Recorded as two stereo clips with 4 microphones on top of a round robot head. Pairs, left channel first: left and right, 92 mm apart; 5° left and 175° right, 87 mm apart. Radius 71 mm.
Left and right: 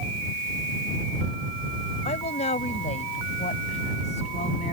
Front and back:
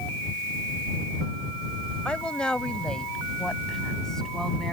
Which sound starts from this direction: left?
A woman speaking, at 2.0 s.